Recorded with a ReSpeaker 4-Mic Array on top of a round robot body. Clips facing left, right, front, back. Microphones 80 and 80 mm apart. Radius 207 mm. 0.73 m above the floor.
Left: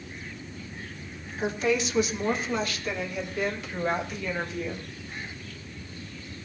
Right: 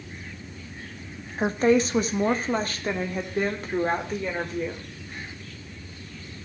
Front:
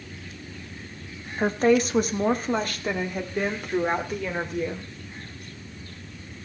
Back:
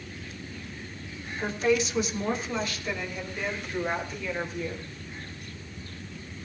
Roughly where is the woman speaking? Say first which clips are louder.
Right 6 dB, front 5 dB; ahead right.